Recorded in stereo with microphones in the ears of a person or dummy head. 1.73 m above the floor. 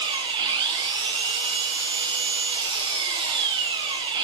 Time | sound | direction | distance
0.0 | an engine running | 25° right (ahead or behind) | 1.3 m